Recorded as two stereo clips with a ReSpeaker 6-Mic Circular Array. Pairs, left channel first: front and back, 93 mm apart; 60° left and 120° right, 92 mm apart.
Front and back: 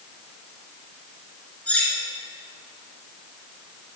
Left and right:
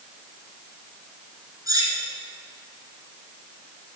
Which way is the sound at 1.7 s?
75° right.